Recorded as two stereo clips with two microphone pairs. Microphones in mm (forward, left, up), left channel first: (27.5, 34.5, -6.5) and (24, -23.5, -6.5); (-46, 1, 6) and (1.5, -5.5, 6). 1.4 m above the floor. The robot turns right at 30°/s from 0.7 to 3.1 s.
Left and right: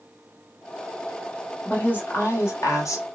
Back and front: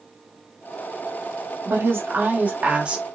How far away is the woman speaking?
About 1.2 m.